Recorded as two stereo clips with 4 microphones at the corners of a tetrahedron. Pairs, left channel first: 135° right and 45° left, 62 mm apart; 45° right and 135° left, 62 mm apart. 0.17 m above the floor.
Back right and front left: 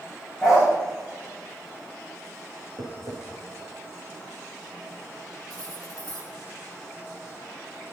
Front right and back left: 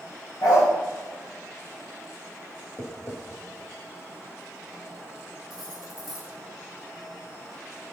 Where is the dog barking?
55° right, 7 m.